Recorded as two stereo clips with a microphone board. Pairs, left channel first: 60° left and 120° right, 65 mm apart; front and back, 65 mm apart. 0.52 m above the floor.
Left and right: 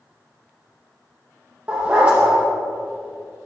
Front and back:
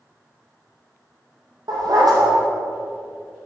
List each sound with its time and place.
1.7 s a dog barking: 170° left, 5.5 m